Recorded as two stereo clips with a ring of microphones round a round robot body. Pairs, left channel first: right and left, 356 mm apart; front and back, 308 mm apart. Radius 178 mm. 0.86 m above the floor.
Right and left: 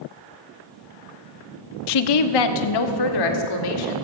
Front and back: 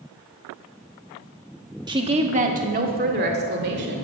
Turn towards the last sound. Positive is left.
turn(degrees=-120)